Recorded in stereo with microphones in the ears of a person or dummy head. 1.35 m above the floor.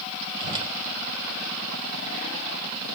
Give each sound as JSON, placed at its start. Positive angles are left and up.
{"t": 0.4, "sound": "a whoosh", "side_deg": -25, "distance_m": 2.5}